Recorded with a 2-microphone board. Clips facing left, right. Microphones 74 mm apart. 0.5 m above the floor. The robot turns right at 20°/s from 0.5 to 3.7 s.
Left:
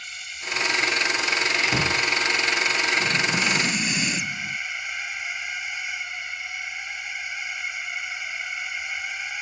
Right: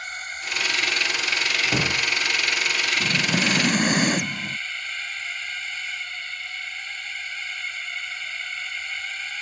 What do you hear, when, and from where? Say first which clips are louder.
0.0 s a drone: right 4 dB; 50° right; by 9.4 s 15° left
1.6 s a door slam: left 1 dB; 20° right (ahead or behind); by 2.1 s 10° right (ahead or behind)
3.0 s breathing: even; 40° right (ahead or behind); by 4.6 s 55° right (ahead or behind)